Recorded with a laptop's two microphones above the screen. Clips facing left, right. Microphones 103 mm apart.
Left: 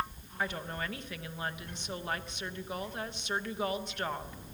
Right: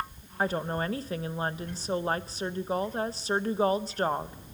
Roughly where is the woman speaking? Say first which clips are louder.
Right 7 dB; right.